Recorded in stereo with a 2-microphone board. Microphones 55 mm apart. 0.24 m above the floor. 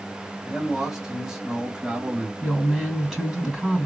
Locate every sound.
0.4 s a man speaking: 5° right (ahead or behind), 1.8 m; by 2.3 s 20° right (ahead or behind), 1.4 m
2.4 s a woman speaking: 10° right (ahead or behind), 2 m